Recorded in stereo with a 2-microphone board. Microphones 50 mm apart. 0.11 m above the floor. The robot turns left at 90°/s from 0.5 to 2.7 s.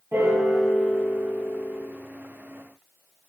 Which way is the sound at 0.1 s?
115° right.